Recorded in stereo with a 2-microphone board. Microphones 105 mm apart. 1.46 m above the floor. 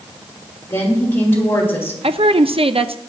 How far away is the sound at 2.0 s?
About 0.6 m.